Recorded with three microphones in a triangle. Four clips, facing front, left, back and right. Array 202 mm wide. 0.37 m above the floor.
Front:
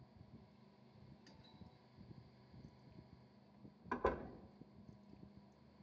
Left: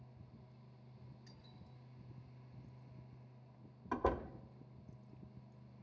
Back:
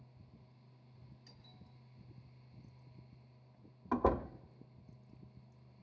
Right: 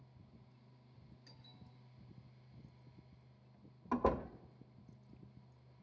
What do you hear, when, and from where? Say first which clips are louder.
1.3 s a doorbell: left 2 dB, even; straight ahead, 6 m
3.9 s a door slam: right 2 dB, back 7 dB; 170° right, 0.6 m